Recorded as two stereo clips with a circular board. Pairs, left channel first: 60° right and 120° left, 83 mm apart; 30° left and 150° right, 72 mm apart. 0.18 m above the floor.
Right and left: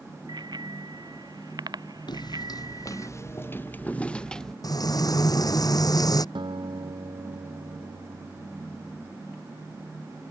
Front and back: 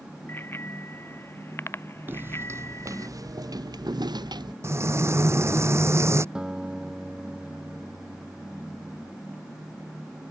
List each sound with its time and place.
0.3 s a bicycle bell: 90° left; by 3.1 s 80° left
2.1 s footsteps: 90° right; by 4.5 s 145° right
4.6 s frying: 100° right
6.3 s a guitar: 130° left